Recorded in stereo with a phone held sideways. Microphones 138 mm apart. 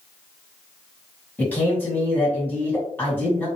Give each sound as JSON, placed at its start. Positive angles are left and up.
{"t": 1.4, "sound": "a man speaking", "side_deg": 10, "distance_m": 1.7}